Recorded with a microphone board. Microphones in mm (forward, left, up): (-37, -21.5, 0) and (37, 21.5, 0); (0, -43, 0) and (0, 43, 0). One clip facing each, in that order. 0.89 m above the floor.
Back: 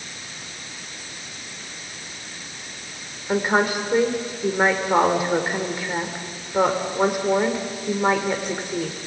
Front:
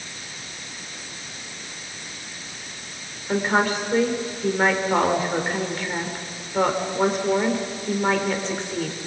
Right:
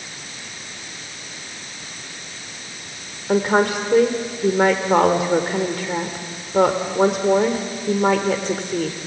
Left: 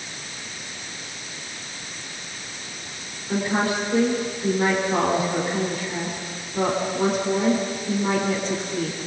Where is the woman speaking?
70° right, 3 m.